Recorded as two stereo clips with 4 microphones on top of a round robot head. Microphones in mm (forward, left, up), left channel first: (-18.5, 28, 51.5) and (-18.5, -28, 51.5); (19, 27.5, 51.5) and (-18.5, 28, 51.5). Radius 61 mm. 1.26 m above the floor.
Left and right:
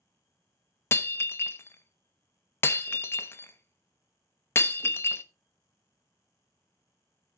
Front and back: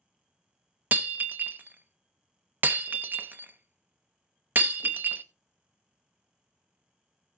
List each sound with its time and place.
0.9 s breaking glass: 140° left, 0.6 m